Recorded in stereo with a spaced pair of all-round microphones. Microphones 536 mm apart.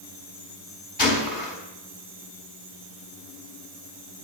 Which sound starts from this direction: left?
A gunshot, at 1.0 s.